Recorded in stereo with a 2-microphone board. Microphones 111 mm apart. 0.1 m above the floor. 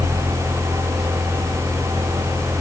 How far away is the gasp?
I don't hear a gasp.